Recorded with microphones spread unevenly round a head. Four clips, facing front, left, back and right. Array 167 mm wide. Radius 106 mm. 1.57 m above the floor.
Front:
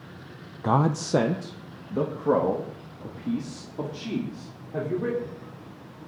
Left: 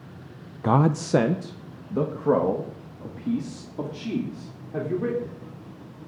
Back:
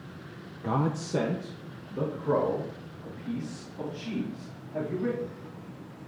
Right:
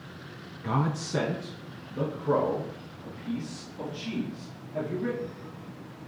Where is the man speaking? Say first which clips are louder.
Left 8 dB, front 5 dB; 80° left, 0.6 m; by 5.4 s 55° left, 4.5 m.